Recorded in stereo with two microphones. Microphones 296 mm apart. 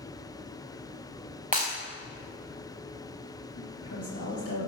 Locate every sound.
1.5 s breaking glass: 25° right (ahead or behind), 4 m
3.6 s a woman speaking: 55° left (ahead or behind), 3 m